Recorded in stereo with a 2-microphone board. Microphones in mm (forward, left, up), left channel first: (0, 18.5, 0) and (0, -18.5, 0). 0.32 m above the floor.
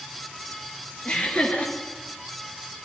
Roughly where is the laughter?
Left.